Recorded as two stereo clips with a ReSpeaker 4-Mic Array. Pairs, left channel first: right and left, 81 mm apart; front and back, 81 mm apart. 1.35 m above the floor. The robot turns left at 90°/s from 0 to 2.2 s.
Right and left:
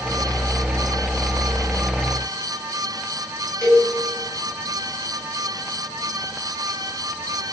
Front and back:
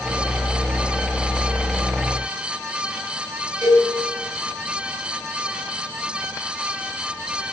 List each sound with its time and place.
3.6 s a cowbell: 165° right, 7.5 m